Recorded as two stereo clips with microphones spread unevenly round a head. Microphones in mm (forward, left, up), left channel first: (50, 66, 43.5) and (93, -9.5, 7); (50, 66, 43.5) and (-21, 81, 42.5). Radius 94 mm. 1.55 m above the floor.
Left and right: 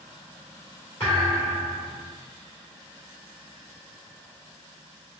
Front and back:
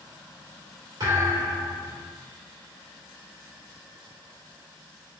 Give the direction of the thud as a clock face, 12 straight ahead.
6 o'clock.